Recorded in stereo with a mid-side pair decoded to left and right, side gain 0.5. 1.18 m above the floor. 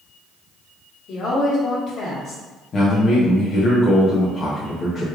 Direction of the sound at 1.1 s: 55° left.